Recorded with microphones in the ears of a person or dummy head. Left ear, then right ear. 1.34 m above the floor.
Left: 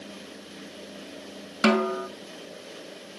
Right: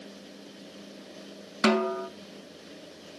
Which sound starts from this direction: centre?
A snare drum, at 1.6 s.